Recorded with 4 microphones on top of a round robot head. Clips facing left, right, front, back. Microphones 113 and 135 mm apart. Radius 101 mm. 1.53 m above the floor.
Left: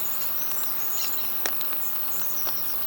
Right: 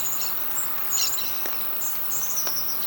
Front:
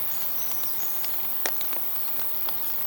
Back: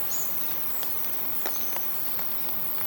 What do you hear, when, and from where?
0.0 s an insect: 150° left, 1.9 m